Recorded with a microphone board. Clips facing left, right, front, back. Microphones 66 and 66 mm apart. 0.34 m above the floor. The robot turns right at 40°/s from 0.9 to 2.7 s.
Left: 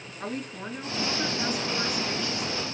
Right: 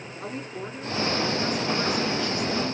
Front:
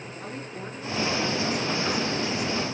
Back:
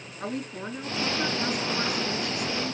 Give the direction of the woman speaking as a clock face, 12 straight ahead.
7 o'clock.